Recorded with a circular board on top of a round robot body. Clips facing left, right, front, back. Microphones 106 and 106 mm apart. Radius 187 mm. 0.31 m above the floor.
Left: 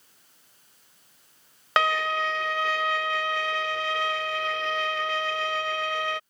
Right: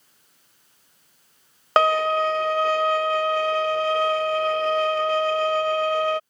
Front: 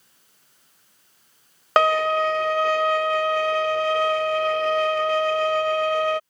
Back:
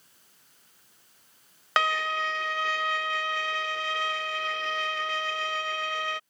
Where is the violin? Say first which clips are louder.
Right 6 dB, front 9 dB; 40° right.